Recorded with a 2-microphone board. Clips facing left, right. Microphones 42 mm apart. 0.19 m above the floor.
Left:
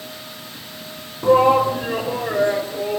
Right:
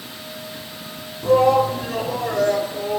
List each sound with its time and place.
1.2 s a shout: 30° left (ahead or behind), 2 m; by 3.0 s 20° left (ahead or behind), 3.5 m